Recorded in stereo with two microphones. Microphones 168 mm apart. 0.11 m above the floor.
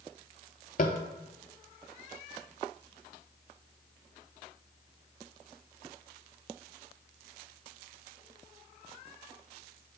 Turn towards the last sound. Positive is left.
turn(degrees=60)  # may be behind; listen again after turning